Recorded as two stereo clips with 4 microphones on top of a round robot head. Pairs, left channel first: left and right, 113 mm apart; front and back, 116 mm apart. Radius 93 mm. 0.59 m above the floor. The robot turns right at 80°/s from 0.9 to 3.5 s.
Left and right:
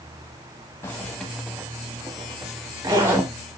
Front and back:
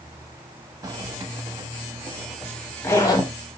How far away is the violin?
No violin in this recording.